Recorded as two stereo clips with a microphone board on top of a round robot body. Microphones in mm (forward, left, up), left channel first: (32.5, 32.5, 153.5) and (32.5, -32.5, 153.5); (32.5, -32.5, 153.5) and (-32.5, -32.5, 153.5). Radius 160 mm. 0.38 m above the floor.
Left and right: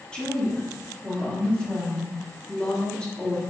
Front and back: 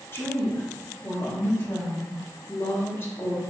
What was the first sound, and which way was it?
A woman speaking, 20° left.